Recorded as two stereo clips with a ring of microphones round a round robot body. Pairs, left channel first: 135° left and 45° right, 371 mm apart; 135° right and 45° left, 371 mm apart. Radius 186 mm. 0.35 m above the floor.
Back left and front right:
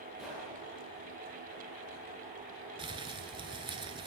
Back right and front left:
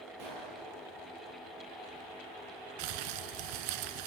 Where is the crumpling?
35° left, 0.9 m.